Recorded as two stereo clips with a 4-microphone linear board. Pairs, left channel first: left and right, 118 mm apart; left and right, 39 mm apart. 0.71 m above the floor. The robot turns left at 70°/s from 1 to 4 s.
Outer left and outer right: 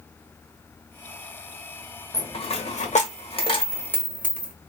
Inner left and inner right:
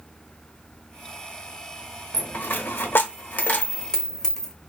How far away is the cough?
I don't hear a cough.